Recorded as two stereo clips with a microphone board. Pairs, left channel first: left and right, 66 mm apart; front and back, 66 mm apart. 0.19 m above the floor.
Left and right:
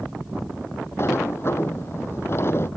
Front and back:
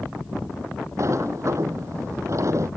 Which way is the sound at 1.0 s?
140° left.